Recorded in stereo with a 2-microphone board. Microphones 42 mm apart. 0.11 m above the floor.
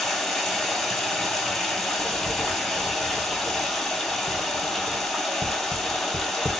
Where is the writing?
10° right (ahead or behind), 0.7 m.